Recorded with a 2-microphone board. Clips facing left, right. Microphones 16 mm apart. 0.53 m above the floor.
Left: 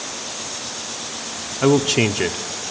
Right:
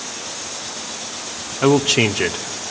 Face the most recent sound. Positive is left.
turn(degrees=-15)  # may be behind; listen again after turning